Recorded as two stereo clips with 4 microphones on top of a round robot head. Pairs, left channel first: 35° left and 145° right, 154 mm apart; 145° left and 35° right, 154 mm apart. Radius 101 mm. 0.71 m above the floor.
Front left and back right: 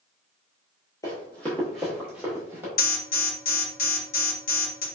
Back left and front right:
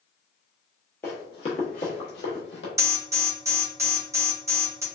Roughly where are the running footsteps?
Left.